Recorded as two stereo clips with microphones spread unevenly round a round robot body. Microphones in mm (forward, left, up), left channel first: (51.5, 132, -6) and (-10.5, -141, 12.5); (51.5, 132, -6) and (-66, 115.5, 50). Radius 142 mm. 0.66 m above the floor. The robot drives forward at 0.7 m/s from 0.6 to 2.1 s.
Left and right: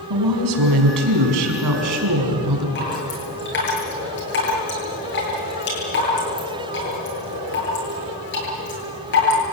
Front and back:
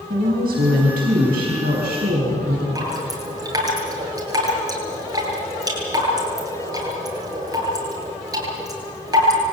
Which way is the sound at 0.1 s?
125° right.